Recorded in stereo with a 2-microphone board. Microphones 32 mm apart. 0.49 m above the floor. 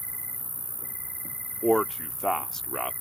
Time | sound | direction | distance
0.0 | an insect | 50° left (ahead or behind) | ?
1.6 | a man speaking | 15° left (ahead or behind) | ?